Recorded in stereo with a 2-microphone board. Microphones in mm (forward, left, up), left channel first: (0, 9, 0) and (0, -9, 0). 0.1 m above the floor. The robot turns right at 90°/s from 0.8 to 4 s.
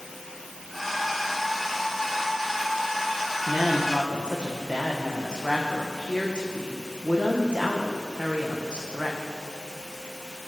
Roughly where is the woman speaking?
Right.